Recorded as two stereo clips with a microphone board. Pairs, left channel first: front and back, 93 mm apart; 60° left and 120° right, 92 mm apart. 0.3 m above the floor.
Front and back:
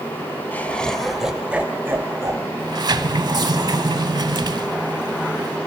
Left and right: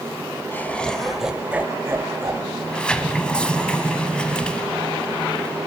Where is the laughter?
35° left, 0.9 m; by 2.5 s 145° right, 1.1 m.